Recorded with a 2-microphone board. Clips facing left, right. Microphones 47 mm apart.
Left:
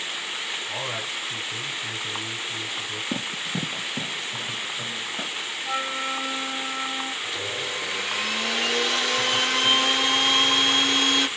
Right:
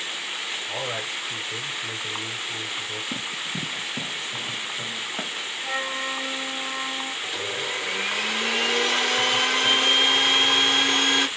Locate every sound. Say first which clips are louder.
0.7 s a man speaking: right 1 dB; 55° right (ahead or behind), 3.5 m
3.1 s running footsteps: left 1 dB; 55° left (ahead or behind), 1.3 m; by 5.5 s 50° right (ahead or behind), 2.5 m
5.6 s a flute: even; 35° right (ahead or behind), 2.0 m
7.2 s a blender: right 1 dB; 35° right (ahead or behind), 2.5 m